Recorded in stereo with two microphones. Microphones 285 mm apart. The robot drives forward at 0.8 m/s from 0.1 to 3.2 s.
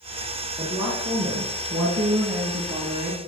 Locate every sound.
0.6 s a woman speaking: 30° right (ahead or behind), 2.5 m; by 3.2 s 45° right (ahead or behind), 1.7 m